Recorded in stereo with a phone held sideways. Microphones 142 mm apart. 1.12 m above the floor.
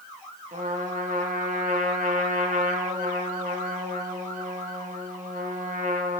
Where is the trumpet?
65° right (ahead or behind), 1.2 m.